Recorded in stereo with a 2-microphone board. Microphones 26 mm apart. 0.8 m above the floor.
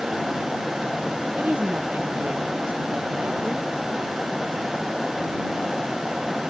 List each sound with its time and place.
1.4 s a woman speaking: 75° right (ahead or behind)